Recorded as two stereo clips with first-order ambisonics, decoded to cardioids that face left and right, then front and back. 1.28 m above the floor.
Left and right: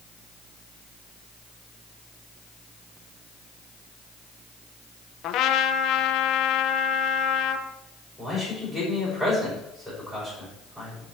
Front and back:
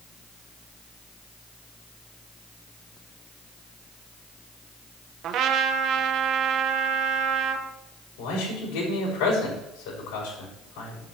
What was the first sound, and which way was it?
A trumpet, 130° left.